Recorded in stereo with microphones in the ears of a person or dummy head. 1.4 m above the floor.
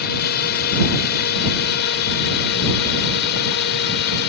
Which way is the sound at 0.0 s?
50° left (ahead or behind).